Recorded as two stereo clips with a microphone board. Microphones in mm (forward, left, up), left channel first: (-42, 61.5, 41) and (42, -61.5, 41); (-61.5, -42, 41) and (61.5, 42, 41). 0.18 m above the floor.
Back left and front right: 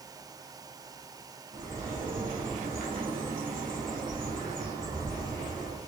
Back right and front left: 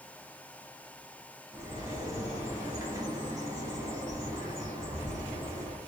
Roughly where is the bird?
Ahead right.